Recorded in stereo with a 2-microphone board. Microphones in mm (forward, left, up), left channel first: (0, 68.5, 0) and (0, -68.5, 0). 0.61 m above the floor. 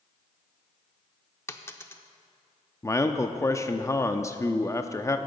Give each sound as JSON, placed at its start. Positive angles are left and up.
{"t": 1.5, "sound": "a dropped coin", "side_deg": 20, "distance_m": 0.6}
{"t": 2.8, "sound": "a man speaking", "side_deg": 20, "distance_m": 0.6}